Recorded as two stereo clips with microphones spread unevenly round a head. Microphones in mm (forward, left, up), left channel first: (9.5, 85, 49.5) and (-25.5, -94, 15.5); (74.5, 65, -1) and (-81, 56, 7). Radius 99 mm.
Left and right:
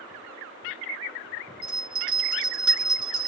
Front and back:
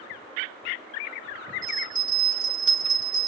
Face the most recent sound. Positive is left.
turn(degrees=-115)